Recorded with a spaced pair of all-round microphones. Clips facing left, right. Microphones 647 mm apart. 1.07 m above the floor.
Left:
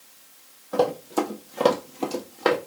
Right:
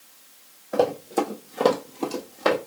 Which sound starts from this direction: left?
Running footsteps, at 0.7 s.